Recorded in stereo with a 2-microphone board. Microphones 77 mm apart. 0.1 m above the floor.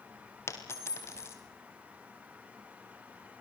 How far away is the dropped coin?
About 4 m.